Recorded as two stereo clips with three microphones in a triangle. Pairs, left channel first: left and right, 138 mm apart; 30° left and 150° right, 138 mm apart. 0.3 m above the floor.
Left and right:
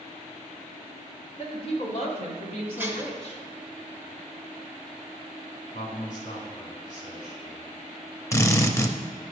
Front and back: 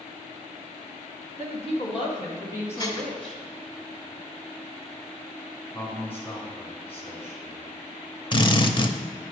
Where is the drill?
40° left, 0.6 m.